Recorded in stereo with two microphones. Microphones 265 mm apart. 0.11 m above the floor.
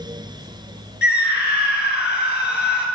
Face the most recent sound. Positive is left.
turn(degrees=40)  # may be behind; listen again after turning